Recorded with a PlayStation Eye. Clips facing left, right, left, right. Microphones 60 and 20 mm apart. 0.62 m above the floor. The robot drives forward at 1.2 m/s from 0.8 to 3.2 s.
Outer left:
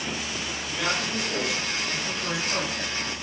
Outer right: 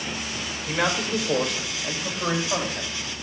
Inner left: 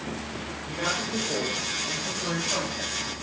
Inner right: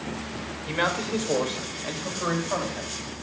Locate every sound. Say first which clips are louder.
0.7 s a man speaking: outer right 5 dB, inner right 3 dB; 70° right (ahead or behind), 2.5 m; by 3.0 s 40° right (ahead or behind), 3.5 m